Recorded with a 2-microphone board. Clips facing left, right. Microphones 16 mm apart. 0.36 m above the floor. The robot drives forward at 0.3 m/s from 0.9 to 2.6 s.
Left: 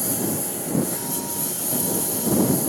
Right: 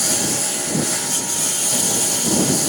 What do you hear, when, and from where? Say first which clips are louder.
0.0 s a lawn mower: right 5 dB; 60° right (ahead or behind)